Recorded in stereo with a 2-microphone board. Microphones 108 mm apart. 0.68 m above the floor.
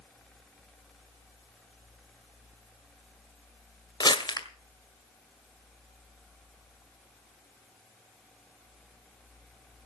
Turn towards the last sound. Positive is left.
turn(degrees=45)  # may be behind; listen again after turning